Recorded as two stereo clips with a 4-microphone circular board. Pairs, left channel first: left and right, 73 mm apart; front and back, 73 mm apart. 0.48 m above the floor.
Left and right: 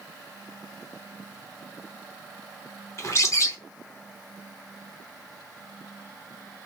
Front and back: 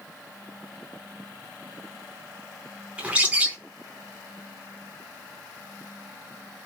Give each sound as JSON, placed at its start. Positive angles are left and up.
{"t": 3.0, "sound": "a bird", "azimuth_deg": 115, "distance_m": 0.7}